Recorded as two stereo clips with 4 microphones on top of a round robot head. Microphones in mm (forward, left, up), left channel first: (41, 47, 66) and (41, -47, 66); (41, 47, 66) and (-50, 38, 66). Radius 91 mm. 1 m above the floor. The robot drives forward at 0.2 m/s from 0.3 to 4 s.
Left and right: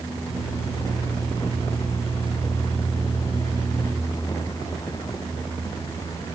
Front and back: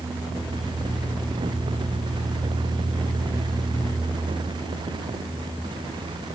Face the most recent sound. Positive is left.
No sound to turn to.